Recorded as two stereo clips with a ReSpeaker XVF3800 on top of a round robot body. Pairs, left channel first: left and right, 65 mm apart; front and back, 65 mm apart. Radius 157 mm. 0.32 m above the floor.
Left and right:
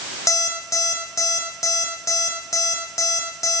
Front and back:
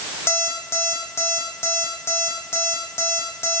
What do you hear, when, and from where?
0.3 s an alarm clock: 50° left, 9.5 m